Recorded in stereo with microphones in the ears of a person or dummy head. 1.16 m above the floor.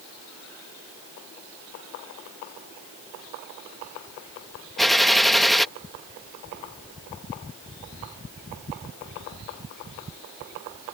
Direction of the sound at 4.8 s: 5° left (ahead or behind).